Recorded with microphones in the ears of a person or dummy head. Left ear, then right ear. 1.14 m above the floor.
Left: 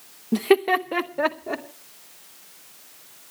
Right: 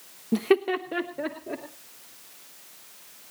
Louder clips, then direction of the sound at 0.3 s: Left 4 dB; centre (ahead or behind).